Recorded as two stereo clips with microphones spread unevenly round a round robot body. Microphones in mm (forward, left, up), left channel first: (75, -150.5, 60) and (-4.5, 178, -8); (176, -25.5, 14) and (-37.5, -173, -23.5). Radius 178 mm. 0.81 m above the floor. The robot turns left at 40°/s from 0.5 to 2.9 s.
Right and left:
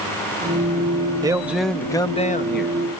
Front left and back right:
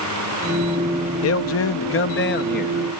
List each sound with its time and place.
1.2 s a man speaking: 40° left; by 2.8 s 20° right